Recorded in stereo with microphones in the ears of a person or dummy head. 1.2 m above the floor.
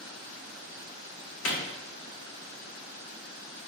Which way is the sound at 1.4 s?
70° left (ahead or behind).